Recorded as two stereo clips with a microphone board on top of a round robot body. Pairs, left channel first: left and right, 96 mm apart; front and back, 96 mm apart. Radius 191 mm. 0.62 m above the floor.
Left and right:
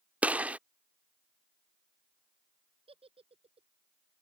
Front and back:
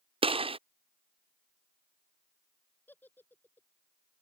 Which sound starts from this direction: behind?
A gunshot, at 0.2 s.